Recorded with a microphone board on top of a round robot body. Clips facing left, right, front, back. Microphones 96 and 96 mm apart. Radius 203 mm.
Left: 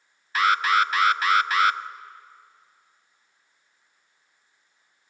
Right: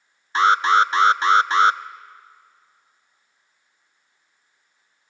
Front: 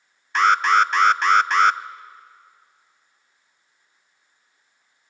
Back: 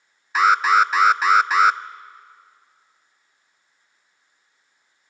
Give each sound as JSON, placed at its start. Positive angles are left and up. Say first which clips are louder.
{"t": 0.3, "sound": "an alarm", "louder": "right 5 dB, back 1 dB", "azimuth_deg": -100, "distance_m": 0.6}